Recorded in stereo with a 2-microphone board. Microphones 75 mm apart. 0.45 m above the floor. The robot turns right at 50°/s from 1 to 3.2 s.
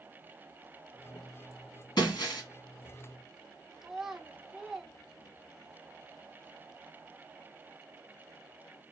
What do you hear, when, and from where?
2.0 s breaking glass: 85° left, 1.3 m; by 2.4 s 70° left (ahead or behind), 1.3 m
3.8 s a child speaking: 5° right (ahead or behind), 0.5 m